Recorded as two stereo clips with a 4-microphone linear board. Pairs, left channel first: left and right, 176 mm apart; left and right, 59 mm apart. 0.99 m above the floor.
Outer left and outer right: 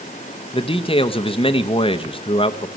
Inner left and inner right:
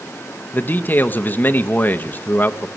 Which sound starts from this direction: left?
A man speaking, at 0.5 s.